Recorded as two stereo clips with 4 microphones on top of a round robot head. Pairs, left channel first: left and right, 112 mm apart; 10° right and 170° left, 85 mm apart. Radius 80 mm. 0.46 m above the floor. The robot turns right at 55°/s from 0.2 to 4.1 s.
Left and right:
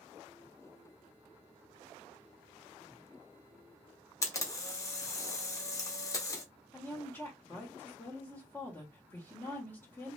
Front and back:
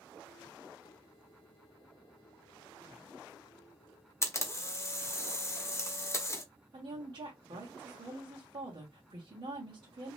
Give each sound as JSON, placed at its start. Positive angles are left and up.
{"t": 4.2, "sound": "a camera shutter", "azimuth_deg": 35, "distance_m": 0.9}
{"t": 6.7, "sound": "a woman speaking", "azimuth_deg": 155, "distance_m": 1.4}